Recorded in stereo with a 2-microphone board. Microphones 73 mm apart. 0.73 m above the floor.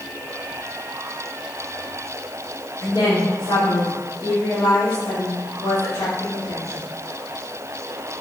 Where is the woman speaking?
65° left (ahead or behind), 1.9 m.